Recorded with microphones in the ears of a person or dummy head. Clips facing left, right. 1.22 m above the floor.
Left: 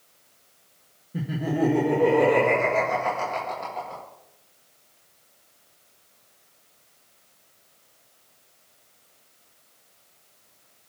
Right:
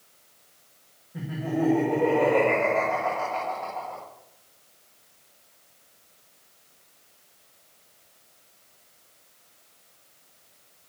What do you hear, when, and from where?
1.1 s laughter: 40° left (ahead or behind), 1.7 m